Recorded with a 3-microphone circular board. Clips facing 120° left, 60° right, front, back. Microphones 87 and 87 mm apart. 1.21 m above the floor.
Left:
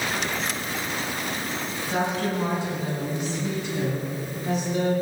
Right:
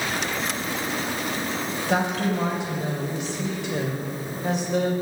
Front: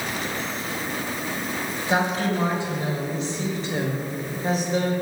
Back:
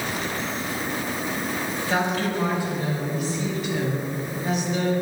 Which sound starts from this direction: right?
A woman speaking, at 1.9 s.